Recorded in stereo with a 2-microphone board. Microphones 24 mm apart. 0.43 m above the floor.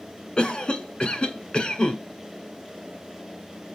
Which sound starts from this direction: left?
A cough, at 0.4 s.